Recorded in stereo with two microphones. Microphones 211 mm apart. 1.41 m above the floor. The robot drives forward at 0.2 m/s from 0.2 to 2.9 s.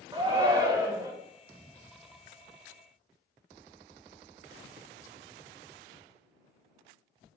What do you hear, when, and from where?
0.1 s a shout: 20° right (ahead or behind), 0.5 m; by 1.1 s 15° right (ahead or behind), 0.7 m